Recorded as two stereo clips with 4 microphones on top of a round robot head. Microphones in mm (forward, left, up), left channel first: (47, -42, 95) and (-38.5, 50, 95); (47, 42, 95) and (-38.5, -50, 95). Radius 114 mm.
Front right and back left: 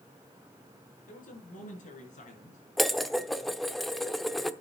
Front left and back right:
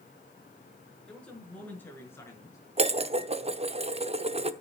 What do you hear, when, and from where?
1.1 s a man speaking: 35° right, 6 m; by 2.6 s 20° right, 6 m
2.8 s dishes clattering: 135° right, 1.0 m